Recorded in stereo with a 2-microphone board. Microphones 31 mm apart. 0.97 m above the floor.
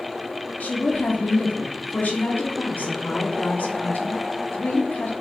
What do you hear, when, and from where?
0.6 s a woman speaking: 65° left (ahead or behind), 2.0 m